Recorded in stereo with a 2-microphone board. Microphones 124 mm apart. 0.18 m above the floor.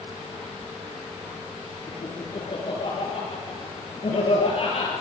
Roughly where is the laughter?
Left.